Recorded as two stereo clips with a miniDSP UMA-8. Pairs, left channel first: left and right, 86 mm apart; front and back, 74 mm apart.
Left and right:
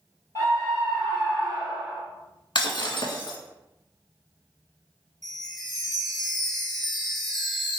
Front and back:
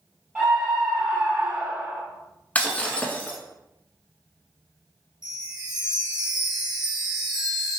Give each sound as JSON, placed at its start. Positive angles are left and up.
{"t": 0.3, "sound": "a scream", "azimuth_deg": 110, "distance_m": 1.7}
{"t": 2.5, "sound": "breaking glass", "azimuth_deg": 65, "distance_m": 0.5}
{"t": 5.2, "sound": "a chime", "azimuth_deg": 180, "distance_m": 0.9}